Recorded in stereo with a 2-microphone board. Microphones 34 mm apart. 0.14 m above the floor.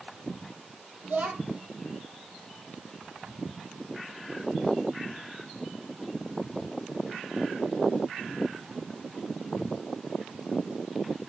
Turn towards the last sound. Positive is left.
turn(degrees=-60)  # may be behind; listen again after turning